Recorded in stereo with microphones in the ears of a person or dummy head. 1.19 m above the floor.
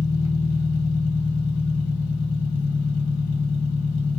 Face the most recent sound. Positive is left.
turn(degrees=80)